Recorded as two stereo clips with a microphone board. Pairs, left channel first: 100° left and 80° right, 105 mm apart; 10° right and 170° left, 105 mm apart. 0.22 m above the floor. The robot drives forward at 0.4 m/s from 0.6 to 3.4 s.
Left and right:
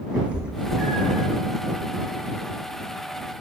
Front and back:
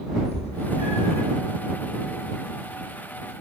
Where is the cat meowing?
Straight ahead, 1.6 m; by 1.3 s 5° left, 1.3 m.